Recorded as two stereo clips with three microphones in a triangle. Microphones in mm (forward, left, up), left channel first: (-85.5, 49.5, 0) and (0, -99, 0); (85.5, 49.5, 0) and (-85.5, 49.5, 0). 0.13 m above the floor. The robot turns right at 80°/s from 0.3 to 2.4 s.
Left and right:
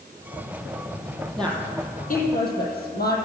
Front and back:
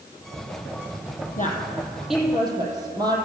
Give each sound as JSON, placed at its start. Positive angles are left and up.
{"t": 1.4, "sound": "a woman speaking", "azimuth_deg": 35, "distance_m": 4.0}